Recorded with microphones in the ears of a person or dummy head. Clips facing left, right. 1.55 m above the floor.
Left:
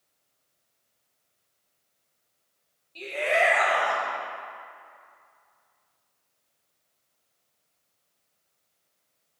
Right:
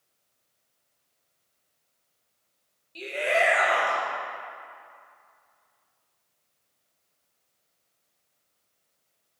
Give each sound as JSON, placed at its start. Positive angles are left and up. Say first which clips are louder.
{"t": 3.0, "sound": "a shout", "louder": "even", "side_deg": -15, "distance_m": 1.8}